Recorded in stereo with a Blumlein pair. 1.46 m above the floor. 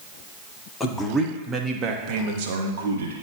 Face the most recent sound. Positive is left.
turn(degrees=-65)